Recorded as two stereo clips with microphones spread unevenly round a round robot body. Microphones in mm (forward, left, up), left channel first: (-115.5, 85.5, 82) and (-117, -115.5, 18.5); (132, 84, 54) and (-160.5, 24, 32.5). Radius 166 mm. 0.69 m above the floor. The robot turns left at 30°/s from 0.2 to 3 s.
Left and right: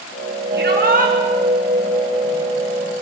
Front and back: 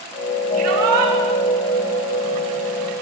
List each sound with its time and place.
0.5 s a shout: 120° right, 8.5 m; by 1.1 s 140° right, 8.5 m